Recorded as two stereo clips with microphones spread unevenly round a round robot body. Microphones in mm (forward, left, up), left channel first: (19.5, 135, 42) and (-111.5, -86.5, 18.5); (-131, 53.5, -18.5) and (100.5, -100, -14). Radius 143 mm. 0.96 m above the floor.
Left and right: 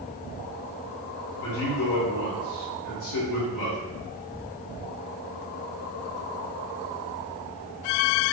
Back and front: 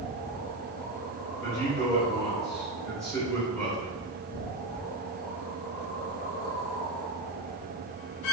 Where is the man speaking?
60° left, 3.5 m.